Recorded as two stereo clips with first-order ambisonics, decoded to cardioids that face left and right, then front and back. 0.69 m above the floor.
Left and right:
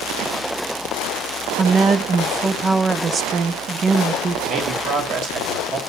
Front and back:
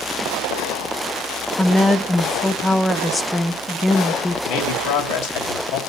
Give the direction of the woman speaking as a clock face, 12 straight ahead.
2 o'clock.